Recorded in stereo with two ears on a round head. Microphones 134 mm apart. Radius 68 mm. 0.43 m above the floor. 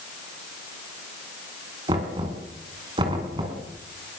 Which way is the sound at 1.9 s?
30° right (ahead or behind).